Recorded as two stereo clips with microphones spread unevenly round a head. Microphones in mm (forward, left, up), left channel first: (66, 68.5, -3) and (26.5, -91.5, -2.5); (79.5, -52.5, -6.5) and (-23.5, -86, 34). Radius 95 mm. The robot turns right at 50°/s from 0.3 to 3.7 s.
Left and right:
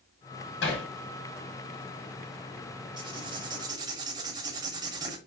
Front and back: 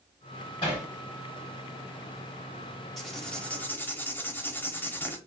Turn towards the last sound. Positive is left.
turn(degrees=-80)